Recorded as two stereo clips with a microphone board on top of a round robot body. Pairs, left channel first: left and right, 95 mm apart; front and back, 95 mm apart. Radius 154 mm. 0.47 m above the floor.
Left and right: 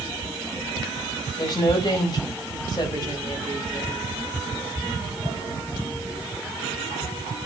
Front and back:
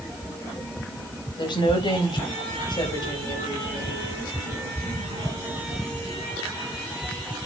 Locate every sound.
1.4 s a woman speaking: 45° left, 3.5 m